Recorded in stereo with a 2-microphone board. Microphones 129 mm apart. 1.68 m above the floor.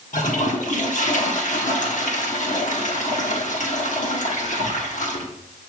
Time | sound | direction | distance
0.1 | a toilet flushing | 75° left (ahead or behind) | 1.3 m